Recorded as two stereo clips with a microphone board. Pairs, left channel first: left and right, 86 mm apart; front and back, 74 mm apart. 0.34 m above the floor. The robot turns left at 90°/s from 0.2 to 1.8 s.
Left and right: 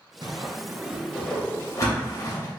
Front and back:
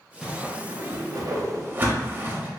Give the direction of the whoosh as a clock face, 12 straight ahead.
3 o'clock.